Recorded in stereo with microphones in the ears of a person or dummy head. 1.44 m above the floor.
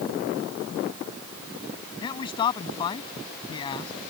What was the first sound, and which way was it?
A man speaking, 25° left (ahead or behind).